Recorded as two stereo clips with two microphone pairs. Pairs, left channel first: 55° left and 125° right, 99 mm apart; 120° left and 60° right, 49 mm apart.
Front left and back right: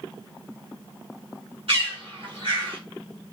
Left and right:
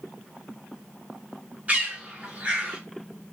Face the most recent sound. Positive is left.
turn(degrees=-120)